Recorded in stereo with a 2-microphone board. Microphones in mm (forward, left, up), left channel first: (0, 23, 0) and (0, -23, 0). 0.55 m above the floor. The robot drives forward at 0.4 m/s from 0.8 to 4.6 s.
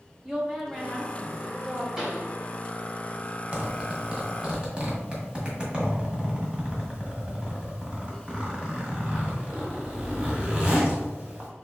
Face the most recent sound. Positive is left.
turn(degrees=-20)  # may be behind; listen again after turning